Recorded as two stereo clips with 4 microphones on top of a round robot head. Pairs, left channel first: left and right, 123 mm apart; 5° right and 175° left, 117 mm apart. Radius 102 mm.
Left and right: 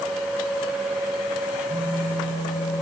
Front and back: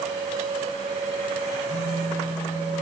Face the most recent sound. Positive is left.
turn(degrees=20)